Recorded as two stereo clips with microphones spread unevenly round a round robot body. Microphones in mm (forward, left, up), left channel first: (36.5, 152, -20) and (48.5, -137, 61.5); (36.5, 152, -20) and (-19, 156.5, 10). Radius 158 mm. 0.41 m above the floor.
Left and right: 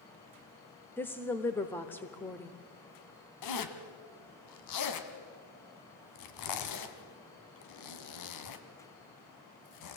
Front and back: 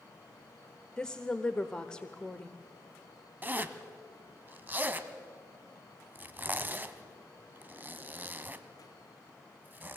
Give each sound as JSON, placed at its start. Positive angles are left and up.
{"t": 1.0, "sound": "a woman speaking", "azimuth_deg": 30, "distance_m": 1.0}
{"t": 3.4, "sound": "a zipper", "azimuth_deg": 110, "distance_m": 1.7}